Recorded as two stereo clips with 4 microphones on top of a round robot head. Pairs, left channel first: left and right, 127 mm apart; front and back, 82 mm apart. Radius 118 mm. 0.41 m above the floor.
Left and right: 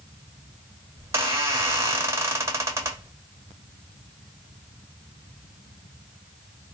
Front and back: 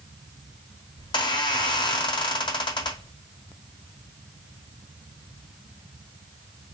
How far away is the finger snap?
No finger snap in this recording.